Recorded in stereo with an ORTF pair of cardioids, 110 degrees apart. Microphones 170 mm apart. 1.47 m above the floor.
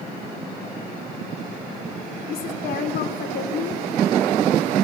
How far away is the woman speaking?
About 3.5 m.